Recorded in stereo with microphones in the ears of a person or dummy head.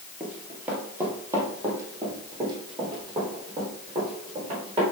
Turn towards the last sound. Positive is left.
turn(degrees=-30)  # may be behind; listen again after turning